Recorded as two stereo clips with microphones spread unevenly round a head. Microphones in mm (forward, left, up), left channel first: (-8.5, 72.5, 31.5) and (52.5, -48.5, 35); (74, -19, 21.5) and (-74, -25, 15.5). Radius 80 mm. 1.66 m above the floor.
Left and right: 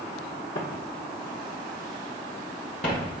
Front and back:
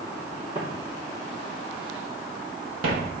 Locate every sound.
0.6 s footsteps: 110° left, 2.5 m; by 3.1 s 155° left, 2 m